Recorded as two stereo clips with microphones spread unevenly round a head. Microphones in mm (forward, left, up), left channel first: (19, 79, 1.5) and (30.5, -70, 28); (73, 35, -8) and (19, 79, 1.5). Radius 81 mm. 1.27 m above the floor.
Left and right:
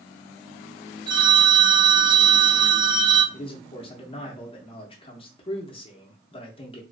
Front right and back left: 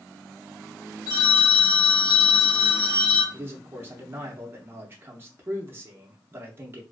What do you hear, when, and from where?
1.1 s a phone ringing: 40° right, 0.9 m
3.3 s a man speaking: 85° left, 0.6 m